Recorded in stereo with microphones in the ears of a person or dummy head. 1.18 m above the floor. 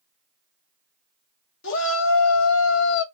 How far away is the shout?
About 1.1 m.